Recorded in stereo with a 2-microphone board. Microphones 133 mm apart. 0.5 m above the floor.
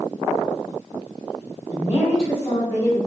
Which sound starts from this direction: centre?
A woman speaking, at 1.7 s.